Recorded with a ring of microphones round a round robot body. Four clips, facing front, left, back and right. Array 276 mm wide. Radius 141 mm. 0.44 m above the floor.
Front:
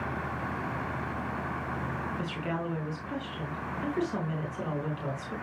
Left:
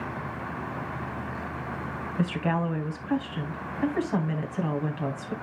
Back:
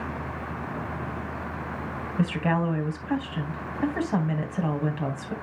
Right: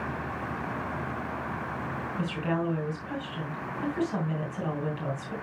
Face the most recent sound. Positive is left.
turn(degrees=155)